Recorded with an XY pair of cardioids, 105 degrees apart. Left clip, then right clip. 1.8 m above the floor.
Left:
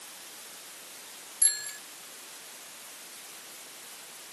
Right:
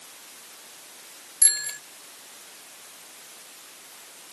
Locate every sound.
1.4 s a bicycle bell: 45° right